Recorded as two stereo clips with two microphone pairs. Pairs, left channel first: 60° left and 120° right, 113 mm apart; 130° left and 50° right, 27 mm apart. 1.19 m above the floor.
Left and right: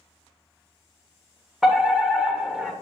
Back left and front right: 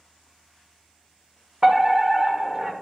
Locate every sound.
1.6 s a fire alarm: 45° right, 1.0 m